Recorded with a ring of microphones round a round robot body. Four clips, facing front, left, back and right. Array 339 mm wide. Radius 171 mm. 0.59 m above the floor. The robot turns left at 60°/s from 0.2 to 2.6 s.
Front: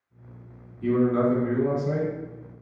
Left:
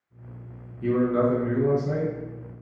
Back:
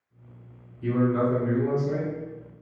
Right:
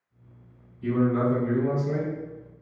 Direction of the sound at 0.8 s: 70° left.